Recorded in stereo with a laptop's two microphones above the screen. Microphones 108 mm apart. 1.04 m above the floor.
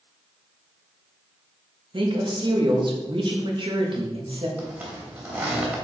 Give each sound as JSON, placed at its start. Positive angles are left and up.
{"t": 1.9, "sound": "a woman speaking", "side_deg": -50, "distance_m": 1.3}
{"t": 4.6, "sound": "a zipper", "side_deg": -15, "distance_m": 2.5}